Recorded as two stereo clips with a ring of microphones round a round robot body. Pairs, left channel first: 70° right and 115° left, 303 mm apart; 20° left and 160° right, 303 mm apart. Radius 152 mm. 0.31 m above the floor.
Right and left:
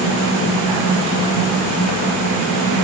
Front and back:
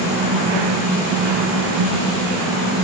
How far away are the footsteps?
I don't hear footsteps.